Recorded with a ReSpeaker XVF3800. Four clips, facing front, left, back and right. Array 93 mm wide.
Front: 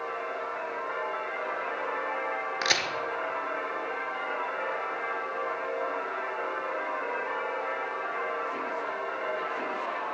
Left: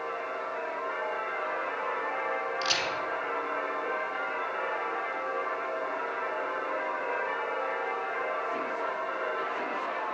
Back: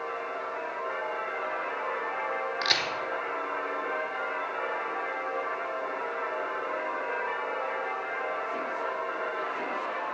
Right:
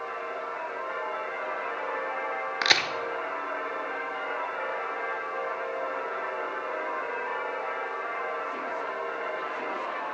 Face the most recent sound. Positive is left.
turn(degrees=-75)